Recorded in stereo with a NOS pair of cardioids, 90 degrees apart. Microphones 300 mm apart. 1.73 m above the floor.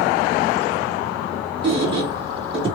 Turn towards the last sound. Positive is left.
turn(degrees=-20)